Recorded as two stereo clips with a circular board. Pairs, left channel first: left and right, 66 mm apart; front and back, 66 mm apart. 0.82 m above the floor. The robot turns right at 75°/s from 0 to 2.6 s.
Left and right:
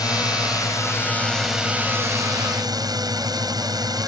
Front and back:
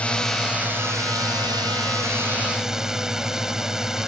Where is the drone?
70° left; by 4.1 s 95° right.